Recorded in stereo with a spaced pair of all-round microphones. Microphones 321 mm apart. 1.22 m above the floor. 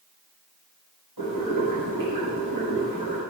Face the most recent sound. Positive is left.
turn(degrees=-70)  # may be behind; listen again after turning